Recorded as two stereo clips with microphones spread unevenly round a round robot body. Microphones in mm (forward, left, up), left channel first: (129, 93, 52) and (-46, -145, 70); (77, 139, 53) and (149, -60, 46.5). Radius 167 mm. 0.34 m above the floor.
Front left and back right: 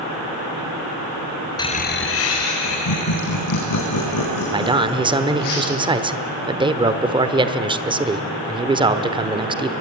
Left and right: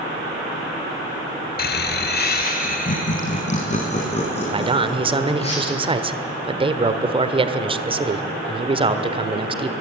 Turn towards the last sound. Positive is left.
turn(degrees=-65)